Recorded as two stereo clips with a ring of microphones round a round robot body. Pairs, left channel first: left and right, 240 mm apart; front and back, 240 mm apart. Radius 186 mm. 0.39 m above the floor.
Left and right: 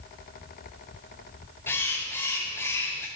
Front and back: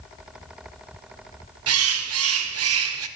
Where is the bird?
170° left, 0.8 m.